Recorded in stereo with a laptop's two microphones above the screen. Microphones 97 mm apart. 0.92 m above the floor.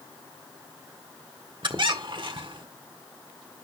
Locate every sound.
1.6 s a squeak: 55° right (ahead or behind), 1.5 m